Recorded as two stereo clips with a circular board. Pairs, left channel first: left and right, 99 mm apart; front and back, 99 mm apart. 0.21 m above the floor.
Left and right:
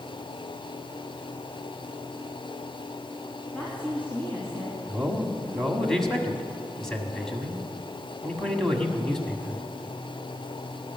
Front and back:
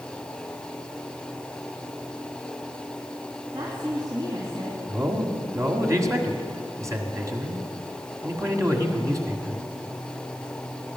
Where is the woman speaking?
165° left, 2.5 m; by 4.8 s 145° left, 2.5 m.